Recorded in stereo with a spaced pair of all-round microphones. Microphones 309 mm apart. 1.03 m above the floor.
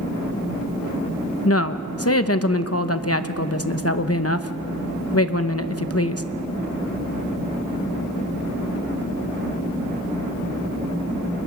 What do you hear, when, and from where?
1.4 s a woman speaking: 50° left (ahead or behind), 0.9 m